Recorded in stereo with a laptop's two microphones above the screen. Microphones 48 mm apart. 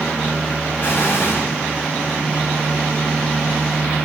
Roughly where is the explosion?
Left.